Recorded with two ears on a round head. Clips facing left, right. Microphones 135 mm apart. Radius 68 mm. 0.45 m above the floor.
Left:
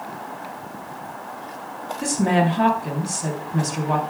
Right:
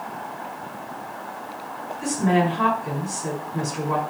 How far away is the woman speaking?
About 4 m.